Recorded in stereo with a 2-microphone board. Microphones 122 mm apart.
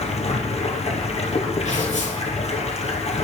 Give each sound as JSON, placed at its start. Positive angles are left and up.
{"t": 0.0, "sound": "running water", "side_deg": 60, "distance_m": 2.0}
{"t": 1.6, "sound": "tearing paper", "side_deg": 70, "distance_m": 3.5}